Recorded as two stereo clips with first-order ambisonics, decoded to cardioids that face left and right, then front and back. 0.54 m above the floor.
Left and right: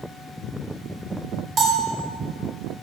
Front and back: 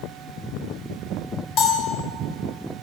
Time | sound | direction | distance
1.6 | a bell | 30° right | 1.1 m